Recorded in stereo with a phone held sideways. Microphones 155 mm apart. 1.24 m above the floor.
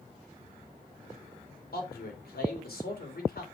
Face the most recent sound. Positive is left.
turn(degrees=80)